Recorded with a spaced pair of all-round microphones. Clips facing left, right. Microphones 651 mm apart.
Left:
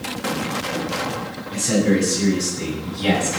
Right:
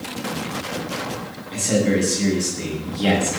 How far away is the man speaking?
About 9.5 m.